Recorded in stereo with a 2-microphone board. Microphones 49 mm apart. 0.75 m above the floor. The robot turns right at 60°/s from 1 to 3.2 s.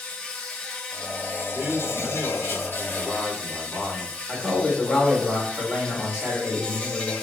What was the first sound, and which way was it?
An insect, 25° left.